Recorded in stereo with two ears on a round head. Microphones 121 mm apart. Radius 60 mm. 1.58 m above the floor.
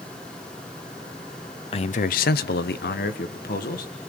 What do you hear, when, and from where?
1.7 s a man speaking: 40° left (ahead or behind), 0.7 m; by 3.9 s 65° left (ahead or behind), 2 m